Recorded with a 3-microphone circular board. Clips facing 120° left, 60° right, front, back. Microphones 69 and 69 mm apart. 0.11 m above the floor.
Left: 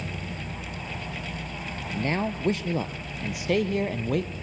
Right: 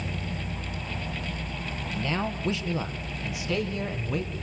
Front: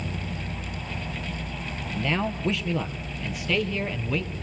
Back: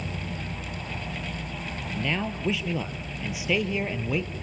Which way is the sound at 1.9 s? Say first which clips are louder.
Left 3 dB, front 3 dB; 85° left.